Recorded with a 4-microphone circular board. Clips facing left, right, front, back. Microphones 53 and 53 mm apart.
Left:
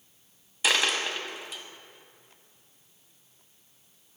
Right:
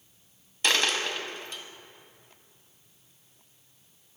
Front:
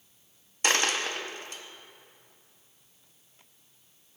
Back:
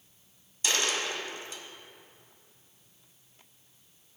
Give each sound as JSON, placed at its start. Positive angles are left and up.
{"t": 0.6, "sound": "a dropped coin", "azimuth_deg": 5, "distance_m": 0.6}